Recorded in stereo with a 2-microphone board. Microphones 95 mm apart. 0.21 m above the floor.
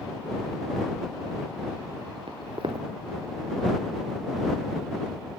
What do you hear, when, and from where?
2.3 s footsteps: 65° right (ahead or behind)